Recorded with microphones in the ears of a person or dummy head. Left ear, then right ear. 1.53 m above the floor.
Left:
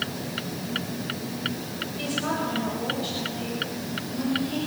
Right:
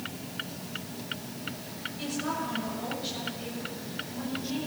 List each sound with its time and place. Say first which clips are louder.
2.0 s a woman speaking: left 5 dB; 15° left (ahead or behind), 7.5 m; by 4.6 s 5° left (ahead or behind), 10.5 m